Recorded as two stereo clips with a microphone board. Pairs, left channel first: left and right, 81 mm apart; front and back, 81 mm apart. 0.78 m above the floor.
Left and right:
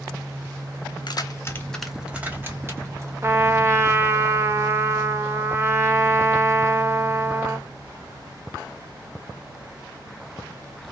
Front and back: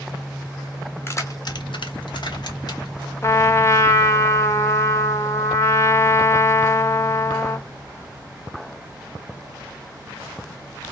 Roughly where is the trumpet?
Ahead right.